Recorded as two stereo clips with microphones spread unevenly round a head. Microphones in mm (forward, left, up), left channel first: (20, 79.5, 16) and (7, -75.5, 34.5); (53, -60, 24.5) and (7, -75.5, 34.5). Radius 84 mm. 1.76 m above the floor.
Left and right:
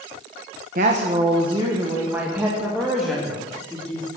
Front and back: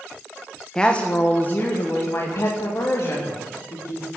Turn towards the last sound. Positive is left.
turn(degrees=0)